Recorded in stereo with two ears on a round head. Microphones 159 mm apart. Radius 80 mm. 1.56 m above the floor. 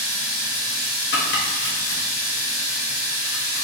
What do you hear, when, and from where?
0.0 s running water: 20° left (ahead or behind), 1.6 m
1.1 s chopping: 65° left (ahead or behind), 0.8 m